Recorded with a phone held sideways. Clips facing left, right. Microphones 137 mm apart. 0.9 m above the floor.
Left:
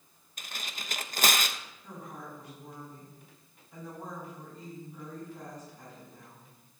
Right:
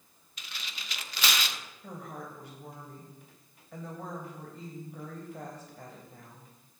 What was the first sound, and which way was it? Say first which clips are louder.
Tearing paper: left 3 dB; 50° left (ahead or behind).